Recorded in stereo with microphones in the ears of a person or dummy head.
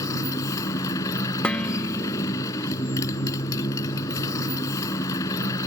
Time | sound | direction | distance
0.0 | a motorcycle | 20° left (ahead or behind) | ?
1.4 | dishes clattering | 10° left (ahead or behind) | ?